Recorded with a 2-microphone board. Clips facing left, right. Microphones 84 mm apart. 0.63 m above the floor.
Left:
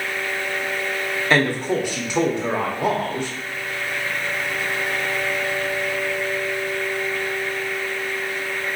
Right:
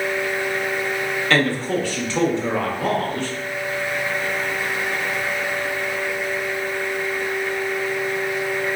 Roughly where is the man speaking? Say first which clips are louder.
Left 1 dB; centre.